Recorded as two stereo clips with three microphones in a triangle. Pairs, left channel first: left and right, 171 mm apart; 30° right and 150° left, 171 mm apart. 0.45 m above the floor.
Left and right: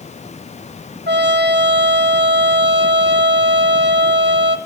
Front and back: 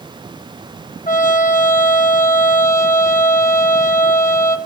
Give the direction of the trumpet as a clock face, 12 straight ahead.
3 o'clock.